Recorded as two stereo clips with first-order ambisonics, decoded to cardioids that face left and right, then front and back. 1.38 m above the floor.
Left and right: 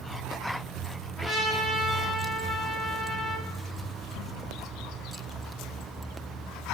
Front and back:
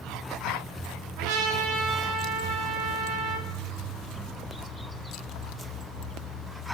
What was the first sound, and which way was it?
A trumpet, 175° left.